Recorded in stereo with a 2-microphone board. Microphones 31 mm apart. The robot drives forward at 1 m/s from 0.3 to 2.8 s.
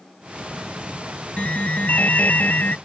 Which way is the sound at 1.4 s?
45° left (ahead or behind).